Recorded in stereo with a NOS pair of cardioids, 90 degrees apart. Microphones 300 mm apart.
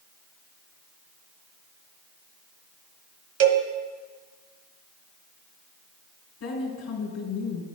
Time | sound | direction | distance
3.4 | a cowbell | 60° right | 1.1 m
6.4 | a woman speaking | 70° left | 4 m